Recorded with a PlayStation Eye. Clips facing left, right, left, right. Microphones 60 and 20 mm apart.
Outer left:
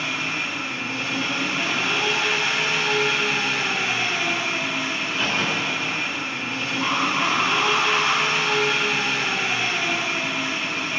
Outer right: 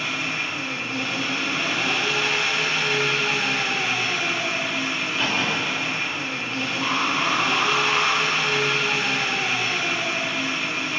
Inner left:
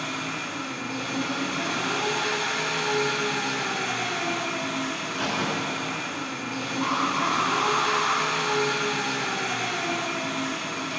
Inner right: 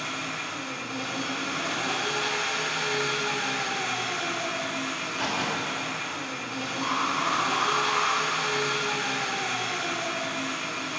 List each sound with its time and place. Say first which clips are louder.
0.0 s an engine running: even, inner left 1 dB; 60° left (ahead or behind), 1.9 m
5.0 s a crack: even, inner left 1 dB; 5° left (ahead or behind), 0.5 m
6.8 s an alarm: outer left 1 dB, inner left 2 dB; 10° left (ahead or behind), 0.9 m